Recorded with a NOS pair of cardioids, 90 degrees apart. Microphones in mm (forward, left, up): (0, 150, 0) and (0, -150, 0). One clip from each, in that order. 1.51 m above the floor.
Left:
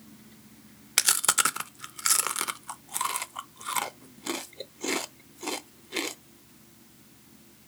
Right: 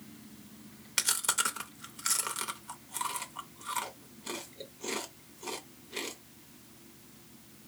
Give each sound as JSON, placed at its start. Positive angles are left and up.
{"t": 1.0, "sound": "chewing", "azimuth_deg": 35, "distance_m": 0.5}